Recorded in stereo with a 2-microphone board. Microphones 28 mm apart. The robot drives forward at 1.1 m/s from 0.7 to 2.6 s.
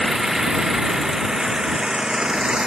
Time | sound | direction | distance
0.0 | an engine running | 20° right (ahead or behind) | ?